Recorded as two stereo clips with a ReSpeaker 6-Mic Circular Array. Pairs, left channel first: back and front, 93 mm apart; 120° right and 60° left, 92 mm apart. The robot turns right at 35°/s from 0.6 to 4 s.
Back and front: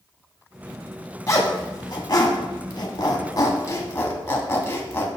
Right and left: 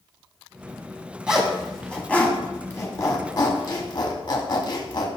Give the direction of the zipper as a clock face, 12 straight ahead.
7 o'clock.